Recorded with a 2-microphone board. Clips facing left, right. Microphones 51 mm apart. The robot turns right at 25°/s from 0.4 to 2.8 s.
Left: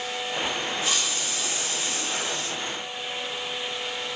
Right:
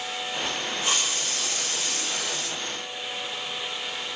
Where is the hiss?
140° right, 2.5 m; by 2.6 s 95° right, 2.5 m.